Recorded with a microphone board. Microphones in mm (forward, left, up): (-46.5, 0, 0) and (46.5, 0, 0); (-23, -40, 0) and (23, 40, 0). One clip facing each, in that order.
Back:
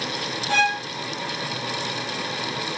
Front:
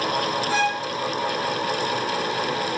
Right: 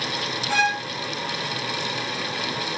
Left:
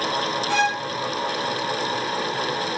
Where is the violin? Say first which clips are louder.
Back 3 dB, even; 150° left, 3.5 m.